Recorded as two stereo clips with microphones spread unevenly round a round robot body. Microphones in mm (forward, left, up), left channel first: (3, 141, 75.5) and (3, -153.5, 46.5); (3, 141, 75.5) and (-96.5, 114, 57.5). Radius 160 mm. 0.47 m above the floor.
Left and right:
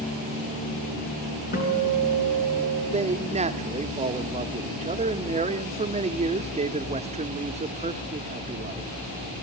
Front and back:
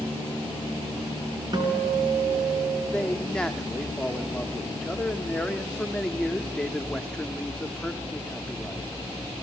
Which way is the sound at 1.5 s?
150° left.